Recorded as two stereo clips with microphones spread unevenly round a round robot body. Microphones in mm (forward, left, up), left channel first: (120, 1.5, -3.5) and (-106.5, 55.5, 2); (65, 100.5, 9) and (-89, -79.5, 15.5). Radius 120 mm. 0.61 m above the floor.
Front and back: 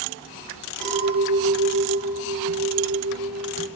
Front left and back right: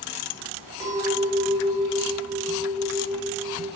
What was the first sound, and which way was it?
A clink, 50° right.